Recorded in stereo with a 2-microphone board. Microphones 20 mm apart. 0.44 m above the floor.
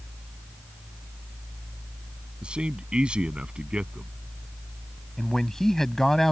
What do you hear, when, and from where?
2.4 s a man speaking: 60° right (ahead or behind)
5.2 s a man speaking: 20° left (ahead or behind)